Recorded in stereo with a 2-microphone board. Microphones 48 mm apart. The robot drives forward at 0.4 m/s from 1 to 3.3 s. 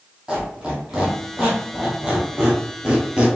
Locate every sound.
0.3 s a squeak: 15° right (ahead or behind), 2 m; by 3.3 s 20° right (ahead or behind), 1.3 m